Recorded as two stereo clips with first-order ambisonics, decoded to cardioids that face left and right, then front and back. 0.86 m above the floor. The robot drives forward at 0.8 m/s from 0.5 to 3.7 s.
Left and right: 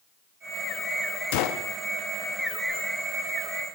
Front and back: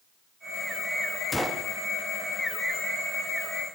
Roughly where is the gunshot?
Left.